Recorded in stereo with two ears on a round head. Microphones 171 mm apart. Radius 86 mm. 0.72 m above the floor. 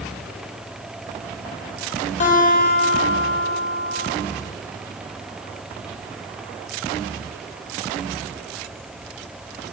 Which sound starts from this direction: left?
A guitar, at 2.2 s.